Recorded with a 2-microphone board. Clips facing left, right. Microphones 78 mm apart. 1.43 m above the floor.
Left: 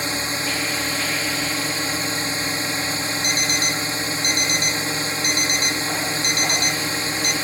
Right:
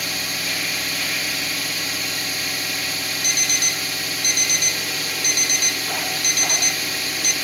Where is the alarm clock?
40° left (ahead or behind).